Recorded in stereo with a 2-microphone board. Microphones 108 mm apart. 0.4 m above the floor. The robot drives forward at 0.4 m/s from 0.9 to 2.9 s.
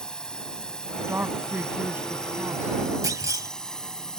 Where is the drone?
5° left (ahead or behind).